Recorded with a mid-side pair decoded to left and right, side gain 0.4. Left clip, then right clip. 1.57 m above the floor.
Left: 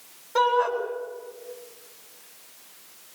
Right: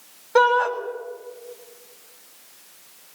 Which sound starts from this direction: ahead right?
A shout, at 0.3 s.